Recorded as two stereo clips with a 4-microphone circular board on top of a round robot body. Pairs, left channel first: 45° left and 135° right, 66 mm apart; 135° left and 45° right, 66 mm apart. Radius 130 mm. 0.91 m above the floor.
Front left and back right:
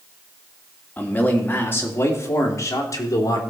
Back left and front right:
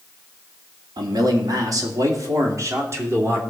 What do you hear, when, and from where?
1.0 s a man speaking: 25° right, 2 m; by 3.4 s 10° left, 2.5 m